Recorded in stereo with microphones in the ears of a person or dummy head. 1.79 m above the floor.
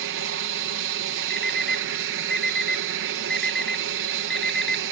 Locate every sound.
0.0 s an aircraft: 65° right (ahead or behind)
1.3 s an alarm clock: centre (ahead or behind)